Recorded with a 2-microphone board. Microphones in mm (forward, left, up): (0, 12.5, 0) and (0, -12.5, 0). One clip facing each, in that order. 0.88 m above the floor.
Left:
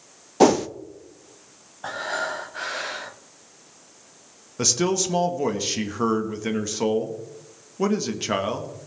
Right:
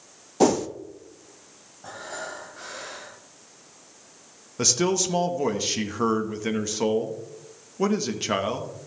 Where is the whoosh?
25° left (ahead or behind), 0.6 m.